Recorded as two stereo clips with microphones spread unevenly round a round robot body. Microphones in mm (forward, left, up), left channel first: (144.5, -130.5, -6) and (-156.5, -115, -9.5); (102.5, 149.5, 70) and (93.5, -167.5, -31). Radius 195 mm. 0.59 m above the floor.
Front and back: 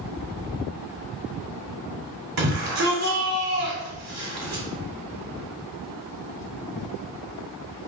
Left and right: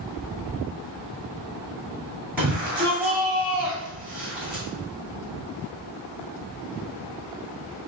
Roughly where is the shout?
Behind.